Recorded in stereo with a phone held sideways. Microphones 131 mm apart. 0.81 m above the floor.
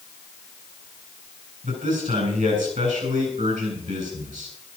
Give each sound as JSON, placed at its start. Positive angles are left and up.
{"t": 1.6, "sound": "a man speaking", "side_deg": -75, "distance_m": 7.0}